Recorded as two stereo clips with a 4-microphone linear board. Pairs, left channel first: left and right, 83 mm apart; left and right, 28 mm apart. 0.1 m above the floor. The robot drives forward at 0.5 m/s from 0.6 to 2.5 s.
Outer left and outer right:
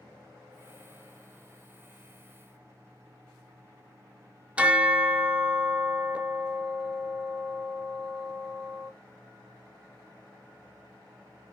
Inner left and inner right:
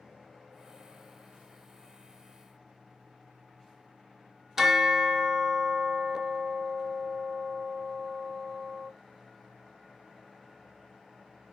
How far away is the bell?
About 0.7 m.